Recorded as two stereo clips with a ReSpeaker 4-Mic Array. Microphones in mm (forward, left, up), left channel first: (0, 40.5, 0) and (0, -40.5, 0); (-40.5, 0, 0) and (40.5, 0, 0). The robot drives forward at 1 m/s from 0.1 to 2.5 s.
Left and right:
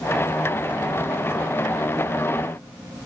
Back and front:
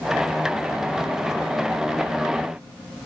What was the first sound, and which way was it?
Only background noise.